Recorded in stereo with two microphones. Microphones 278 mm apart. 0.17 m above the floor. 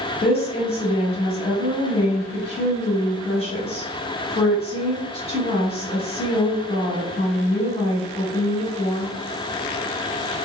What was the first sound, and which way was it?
A woman speaking, 20° left (ahead or behind).